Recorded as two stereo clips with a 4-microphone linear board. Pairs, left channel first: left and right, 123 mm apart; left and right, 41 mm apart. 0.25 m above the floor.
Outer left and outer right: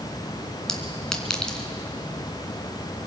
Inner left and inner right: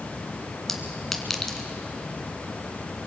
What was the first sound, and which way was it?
A clink, 5° left (ahead or behind).